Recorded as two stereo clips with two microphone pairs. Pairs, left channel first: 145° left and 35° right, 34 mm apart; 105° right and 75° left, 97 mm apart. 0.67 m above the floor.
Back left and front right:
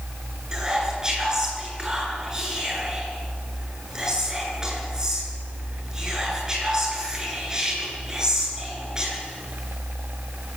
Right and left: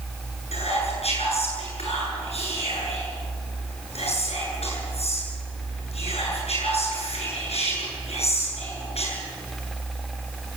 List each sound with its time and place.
0.5 s whispering: 105° right, 9.5 m